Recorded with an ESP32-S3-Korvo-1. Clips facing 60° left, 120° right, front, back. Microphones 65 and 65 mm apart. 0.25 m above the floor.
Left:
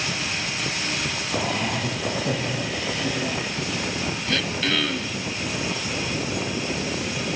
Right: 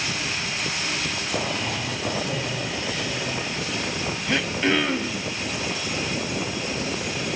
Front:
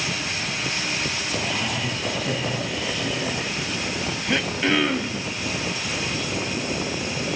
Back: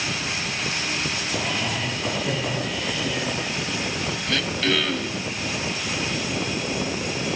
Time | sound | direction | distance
1.4 | laughter | 85° left | 8 m
4.3 | throat clearing | 60° right | 0.9 m